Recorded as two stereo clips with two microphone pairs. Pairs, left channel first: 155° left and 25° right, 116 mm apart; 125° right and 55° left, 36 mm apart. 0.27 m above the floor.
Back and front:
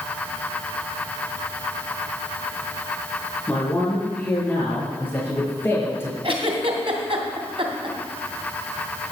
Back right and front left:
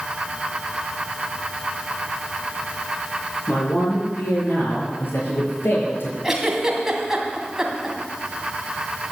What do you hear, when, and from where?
3.5 s a man speaking: 125° right, 6.5 m; by 6.1 s 135° right, 5 m
6.2 s a giggle: 20° right, 2.5 m